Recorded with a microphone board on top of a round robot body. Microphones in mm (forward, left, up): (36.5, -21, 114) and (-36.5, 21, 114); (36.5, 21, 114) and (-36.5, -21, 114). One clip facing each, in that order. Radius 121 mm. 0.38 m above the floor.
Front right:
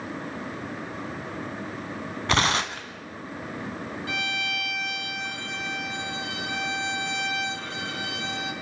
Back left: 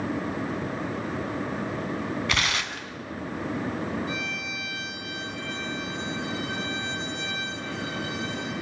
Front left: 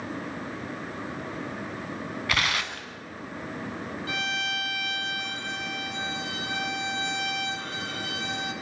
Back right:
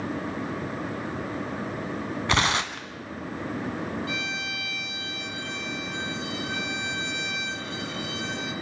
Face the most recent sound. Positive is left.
turn(degrees=-5)